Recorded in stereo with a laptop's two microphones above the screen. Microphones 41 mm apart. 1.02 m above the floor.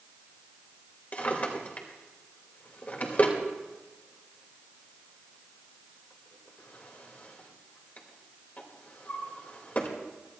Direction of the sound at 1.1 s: 40° left (ahead or behind).